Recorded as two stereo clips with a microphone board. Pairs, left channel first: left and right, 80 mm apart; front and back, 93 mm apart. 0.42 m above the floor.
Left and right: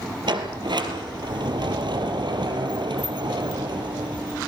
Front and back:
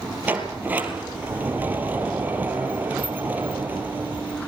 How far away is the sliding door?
About 3 m.